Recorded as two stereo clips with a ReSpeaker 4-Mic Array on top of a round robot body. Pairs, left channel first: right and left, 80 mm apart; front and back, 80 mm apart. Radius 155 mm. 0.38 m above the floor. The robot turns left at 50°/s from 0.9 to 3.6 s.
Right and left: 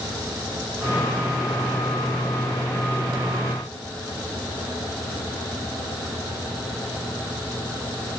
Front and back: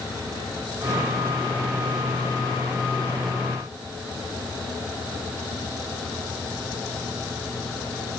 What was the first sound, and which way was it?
Only background noise.